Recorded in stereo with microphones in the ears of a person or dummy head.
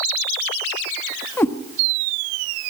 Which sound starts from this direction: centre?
A cat meowing, at 1.4 s.